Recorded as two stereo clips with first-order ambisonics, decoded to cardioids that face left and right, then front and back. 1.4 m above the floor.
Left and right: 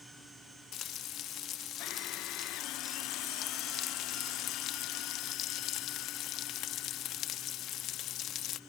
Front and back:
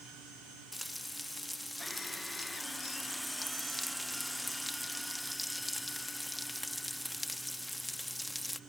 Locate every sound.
0.7 s frying: 90° left